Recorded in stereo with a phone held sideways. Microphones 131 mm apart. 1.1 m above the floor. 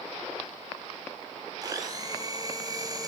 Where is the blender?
30° right (ahead or behind), 3.5 m.